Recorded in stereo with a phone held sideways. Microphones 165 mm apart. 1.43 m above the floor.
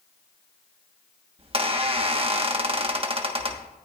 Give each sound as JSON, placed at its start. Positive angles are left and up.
{"t": 1.4, "sound": "a squeak", "side_deg": -35, "distance_m": 1.3}